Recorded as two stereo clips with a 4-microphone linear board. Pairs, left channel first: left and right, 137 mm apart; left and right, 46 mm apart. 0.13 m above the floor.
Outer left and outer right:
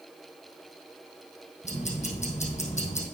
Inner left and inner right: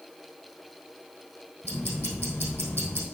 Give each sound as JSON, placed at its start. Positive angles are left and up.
{"t": 1.6, "sound": "ticking", "side_deg": 60, "distance_m": 3.0}